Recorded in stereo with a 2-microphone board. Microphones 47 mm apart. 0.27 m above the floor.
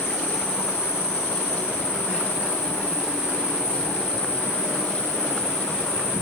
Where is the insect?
25° right (ahead or behind), 5 m.